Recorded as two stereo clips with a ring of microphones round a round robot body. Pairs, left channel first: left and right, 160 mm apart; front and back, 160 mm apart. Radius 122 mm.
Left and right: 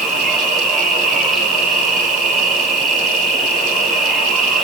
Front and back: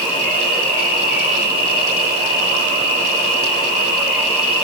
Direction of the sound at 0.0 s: Straight ahead.